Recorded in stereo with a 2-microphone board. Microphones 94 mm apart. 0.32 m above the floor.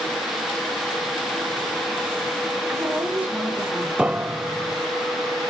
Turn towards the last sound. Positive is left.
turn(degrees=-15)  # may be behind; listen again after turning